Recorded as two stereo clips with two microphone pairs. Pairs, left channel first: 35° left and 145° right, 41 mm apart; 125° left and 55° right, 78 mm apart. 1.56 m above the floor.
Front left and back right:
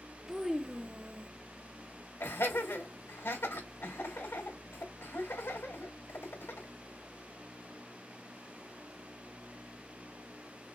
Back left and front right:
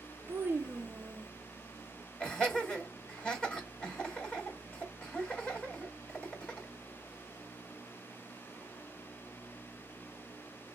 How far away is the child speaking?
About 0.8 m.